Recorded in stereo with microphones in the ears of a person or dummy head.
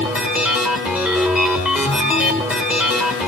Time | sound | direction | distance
0.0 | a machine running | 5° right (ahead or behind) | 0.9 m